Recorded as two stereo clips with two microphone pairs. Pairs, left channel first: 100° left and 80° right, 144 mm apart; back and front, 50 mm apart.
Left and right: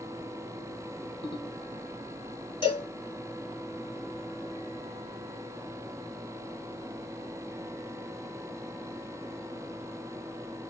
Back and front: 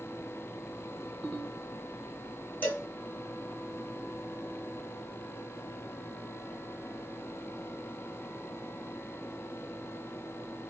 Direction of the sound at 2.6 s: 145° left.